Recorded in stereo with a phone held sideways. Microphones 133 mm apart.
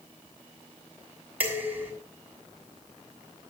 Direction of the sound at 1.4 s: 15° right (ahead or behind).